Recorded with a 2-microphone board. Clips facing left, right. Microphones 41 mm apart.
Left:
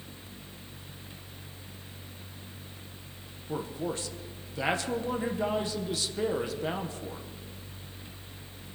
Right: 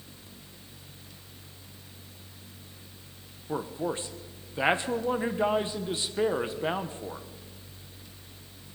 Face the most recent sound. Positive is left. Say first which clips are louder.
# right 2 dB
turn(degrees=-25)  # may be behind; listen again after turning